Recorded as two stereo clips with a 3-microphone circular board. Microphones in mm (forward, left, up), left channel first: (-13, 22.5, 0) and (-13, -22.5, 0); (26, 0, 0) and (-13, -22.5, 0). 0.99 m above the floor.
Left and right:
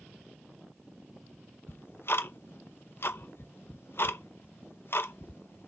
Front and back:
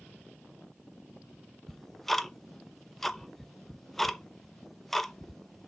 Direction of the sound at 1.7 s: 115° left.